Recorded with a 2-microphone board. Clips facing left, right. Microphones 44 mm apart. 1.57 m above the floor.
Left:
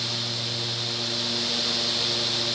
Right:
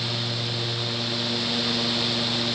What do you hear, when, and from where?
Only background noise.